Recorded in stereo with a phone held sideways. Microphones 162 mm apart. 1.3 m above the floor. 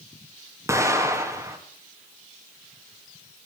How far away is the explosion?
About 2.5 m.